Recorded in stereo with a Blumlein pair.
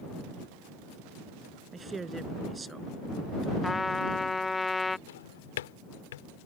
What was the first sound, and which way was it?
A woman speaking, 15° right.